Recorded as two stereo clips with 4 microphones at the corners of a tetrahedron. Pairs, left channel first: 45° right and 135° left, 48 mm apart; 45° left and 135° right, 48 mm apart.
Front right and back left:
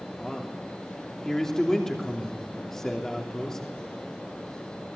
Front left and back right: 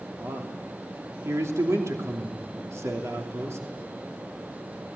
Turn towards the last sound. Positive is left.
turn(degrees=-125)